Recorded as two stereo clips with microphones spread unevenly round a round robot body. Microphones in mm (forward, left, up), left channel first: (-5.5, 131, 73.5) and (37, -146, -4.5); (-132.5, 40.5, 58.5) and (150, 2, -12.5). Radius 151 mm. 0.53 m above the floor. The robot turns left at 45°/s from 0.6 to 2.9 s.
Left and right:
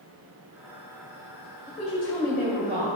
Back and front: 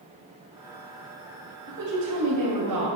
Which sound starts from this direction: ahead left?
A woman speaking, at 1.7 s.